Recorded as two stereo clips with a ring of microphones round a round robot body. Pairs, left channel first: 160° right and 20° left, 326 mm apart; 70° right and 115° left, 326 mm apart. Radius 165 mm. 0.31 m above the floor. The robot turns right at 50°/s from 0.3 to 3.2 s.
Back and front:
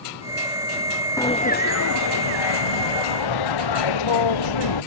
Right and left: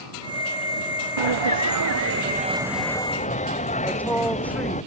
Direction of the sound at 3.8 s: 155° right.